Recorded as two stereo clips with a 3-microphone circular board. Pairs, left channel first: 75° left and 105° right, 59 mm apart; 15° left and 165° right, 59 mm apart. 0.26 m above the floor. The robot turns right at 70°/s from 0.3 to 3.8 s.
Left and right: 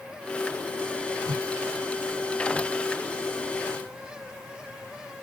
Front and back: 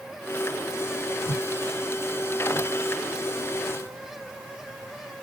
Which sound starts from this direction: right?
A whoosh, at 1.2 s.